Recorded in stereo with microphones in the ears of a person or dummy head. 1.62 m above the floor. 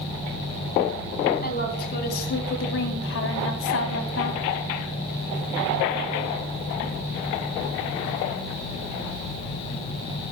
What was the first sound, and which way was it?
A woman speaking, 45° left (ahead or behind).